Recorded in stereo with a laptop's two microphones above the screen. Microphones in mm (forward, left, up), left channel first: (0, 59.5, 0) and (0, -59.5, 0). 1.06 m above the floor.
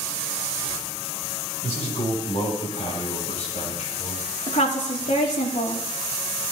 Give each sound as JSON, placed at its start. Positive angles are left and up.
{"t": 1.6, "sound": "a man speaking", "side_deg": 75, "distance_m": 7.0}
{"t": 4.5, "sound": "a woman speaking", "side_deg": 75, "distance_m": 2.5}